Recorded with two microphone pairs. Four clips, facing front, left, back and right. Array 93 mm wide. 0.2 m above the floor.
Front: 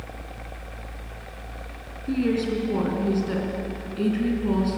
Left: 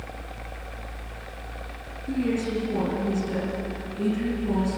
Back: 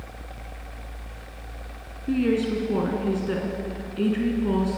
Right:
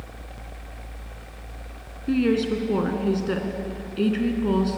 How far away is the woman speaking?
About 2.5 m.